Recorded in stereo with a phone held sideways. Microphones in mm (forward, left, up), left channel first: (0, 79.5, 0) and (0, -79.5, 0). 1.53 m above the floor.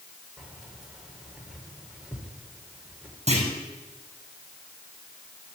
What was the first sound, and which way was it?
Keys jangling, 5° right (ahead or behind).